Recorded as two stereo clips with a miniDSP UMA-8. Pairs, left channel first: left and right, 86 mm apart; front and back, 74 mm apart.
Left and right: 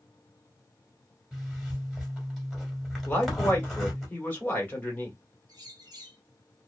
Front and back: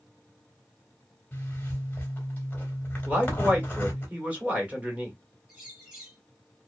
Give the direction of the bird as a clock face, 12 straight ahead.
3 o'clock.